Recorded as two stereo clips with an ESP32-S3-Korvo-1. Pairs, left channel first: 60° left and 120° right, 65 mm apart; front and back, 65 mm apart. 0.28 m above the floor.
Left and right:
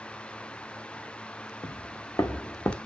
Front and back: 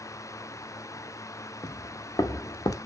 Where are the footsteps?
40° left, 1.7 m; by 2.8 s 10° left, 1.2 m.